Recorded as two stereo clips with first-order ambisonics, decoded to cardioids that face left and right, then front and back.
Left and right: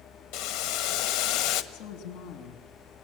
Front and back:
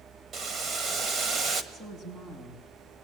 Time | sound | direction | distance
0.3 | boiling | 115° left | 1.5 m
1.7 | a woman speaking | 105° left | 5 m